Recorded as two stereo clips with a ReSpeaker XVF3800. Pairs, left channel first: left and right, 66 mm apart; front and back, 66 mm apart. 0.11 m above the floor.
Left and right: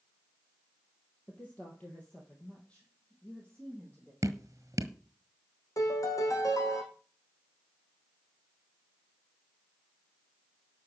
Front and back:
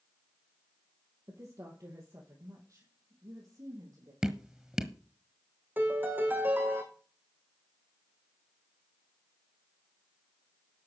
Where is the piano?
120° left, 3 m.